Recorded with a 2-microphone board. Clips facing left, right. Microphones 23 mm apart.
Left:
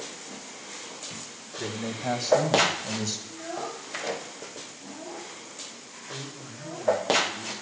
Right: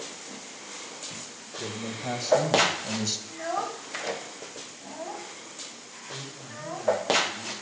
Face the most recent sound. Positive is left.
turn(degrees=-15)  # may be behind; listen again after turning